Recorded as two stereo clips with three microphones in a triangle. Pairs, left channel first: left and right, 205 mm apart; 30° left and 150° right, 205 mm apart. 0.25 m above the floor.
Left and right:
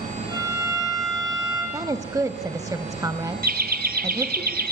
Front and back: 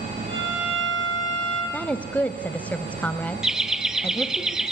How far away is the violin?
About 7 m.